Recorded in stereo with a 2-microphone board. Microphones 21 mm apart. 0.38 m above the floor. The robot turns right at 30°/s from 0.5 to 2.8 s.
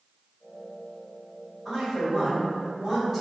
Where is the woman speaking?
165° left, 2.0 m; by 3.2 s 160° right, 2.0 m.